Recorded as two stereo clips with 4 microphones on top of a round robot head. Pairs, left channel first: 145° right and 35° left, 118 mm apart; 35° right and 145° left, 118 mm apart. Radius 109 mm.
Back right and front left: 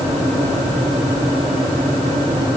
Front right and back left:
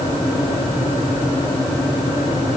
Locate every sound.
Only background noise.